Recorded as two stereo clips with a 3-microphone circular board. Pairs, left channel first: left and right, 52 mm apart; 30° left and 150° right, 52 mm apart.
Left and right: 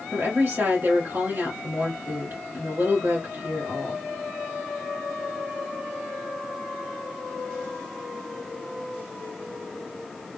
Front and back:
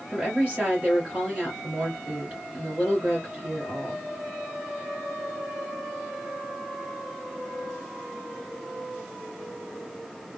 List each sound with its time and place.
0.1 s a woman speaking: 90° right, 2 m